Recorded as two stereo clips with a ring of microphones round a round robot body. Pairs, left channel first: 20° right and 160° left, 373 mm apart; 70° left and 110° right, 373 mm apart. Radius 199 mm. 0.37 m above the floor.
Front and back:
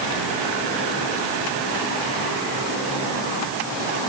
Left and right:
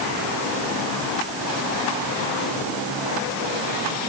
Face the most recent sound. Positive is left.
No sound to turn to.